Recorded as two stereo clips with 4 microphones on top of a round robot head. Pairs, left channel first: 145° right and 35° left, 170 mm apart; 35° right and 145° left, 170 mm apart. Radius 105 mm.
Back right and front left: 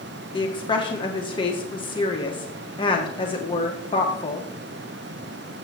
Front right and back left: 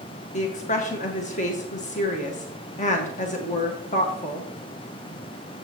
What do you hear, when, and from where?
0.3 s a woman speaking: 80° right, 1.7 m